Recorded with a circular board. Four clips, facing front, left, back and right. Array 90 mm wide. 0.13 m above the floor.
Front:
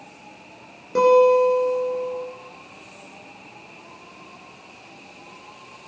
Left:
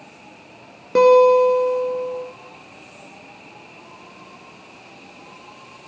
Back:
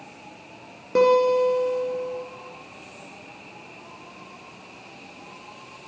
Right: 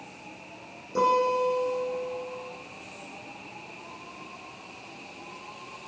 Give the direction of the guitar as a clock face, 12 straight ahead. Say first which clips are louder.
Left 12 dB, front 3 dB; 8 o'clock.